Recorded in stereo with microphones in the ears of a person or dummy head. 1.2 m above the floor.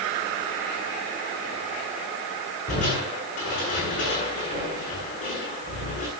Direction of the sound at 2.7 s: 40° left (ahead or behind).